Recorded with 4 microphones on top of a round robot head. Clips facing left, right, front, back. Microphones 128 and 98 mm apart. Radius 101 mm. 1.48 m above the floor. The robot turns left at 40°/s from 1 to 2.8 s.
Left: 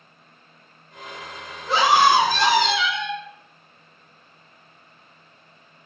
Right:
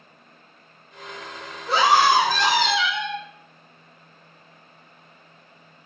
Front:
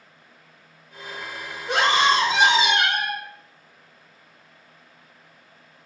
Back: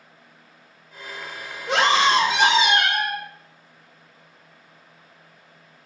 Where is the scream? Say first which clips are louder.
Left 1 dB, back 1 dB; straight behind, 2 m; by 3.2 s 135° left, 2 m.